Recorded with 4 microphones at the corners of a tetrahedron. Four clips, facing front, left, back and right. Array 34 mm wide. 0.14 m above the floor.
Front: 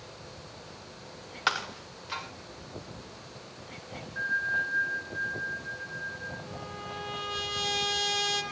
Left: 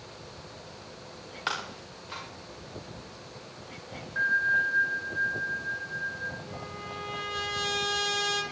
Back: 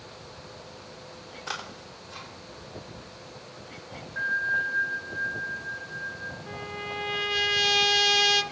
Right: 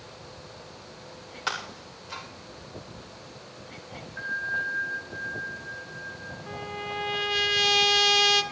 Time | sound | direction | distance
1.5 | breaking glass | 5° left | 5.5 m
4.2 | a bell | 105° left | 9 m
6.5 | a trumpet | 135° right | 2 m